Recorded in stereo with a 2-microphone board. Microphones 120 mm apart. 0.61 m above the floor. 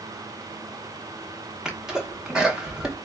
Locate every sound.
1.6 s a sneeze: 5° right (ahead or behind), 0.7 m